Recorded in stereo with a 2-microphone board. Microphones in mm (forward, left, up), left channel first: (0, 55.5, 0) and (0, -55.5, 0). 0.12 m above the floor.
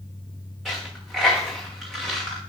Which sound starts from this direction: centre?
A dropped coin, at 0.7 s.